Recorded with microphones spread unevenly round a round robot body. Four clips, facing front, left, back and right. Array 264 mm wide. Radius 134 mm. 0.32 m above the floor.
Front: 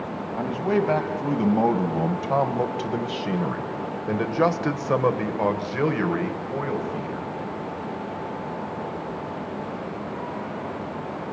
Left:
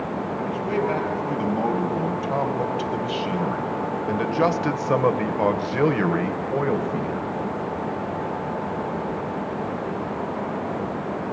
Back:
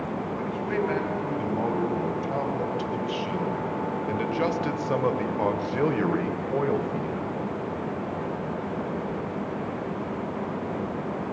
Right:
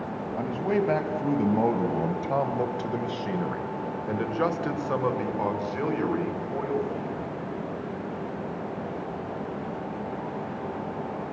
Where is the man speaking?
20° right, 3 m; by 7.3 s 100° left, 2 m.